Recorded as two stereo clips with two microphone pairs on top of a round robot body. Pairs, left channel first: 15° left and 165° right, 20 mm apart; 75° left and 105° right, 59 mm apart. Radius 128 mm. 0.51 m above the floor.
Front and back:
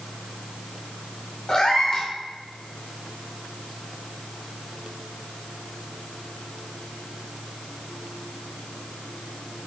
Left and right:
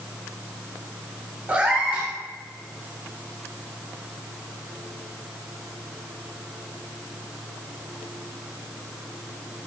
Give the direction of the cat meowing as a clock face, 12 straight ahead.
1 o'clock.